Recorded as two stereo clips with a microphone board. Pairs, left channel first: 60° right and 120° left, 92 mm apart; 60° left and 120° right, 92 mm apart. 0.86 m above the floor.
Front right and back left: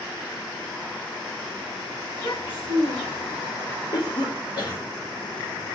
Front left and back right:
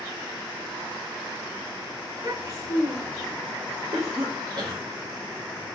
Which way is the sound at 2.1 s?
80° right.